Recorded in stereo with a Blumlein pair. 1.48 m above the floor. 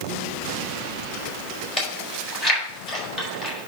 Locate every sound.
1.8 s chewing: 20° left, 5 m